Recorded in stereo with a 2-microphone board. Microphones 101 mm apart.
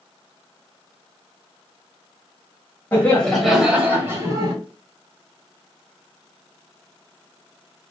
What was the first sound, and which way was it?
Laughter, 20° left (ahead or behind).